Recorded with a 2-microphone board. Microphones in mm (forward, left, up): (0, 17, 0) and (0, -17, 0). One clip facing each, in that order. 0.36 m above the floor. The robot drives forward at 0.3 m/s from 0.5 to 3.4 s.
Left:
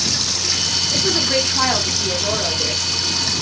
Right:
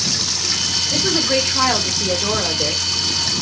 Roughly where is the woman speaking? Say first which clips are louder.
Right 1 dB; right.